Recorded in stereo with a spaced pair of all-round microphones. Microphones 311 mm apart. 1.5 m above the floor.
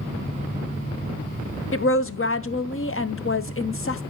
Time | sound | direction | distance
1.7 | a woman speaking | 45° left (ahead or behind) | 0.6 m